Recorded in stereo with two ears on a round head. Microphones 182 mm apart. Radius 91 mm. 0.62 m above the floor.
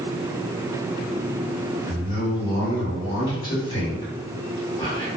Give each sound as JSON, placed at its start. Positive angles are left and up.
{"t": 1.9, "sound": "a man speaking", "side_deg": 25, "distance_m": 1.7}